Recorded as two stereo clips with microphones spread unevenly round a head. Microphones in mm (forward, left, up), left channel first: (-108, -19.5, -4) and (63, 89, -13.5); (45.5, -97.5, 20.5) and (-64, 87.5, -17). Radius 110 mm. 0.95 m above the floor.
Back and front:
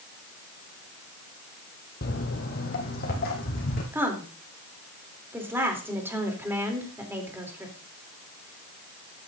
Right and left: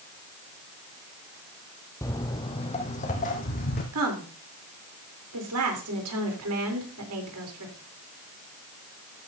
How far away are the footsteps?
About 1.4 m.